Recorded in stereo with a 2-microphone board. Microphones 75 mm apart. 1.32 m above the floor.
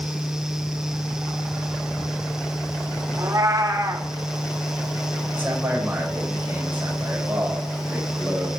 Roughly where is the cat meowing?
Right.